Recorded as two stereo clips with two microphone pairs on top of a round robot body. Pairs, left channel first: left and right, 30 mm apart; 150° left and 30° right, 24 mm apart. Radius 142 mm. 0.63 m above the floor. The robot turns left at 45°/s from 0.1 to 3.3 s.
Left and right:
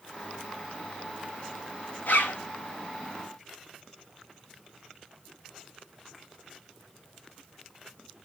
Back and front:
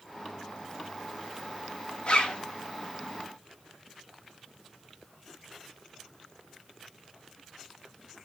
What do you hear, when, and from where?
2.1 s a zipper: 105° left, 2 m; by 2.4 s 90° left, 2 m